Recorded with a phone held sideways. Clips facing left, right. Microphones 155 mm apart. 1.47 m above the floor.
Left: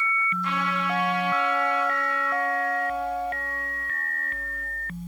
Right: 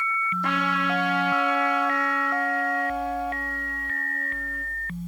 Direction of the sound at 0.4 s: 85° right.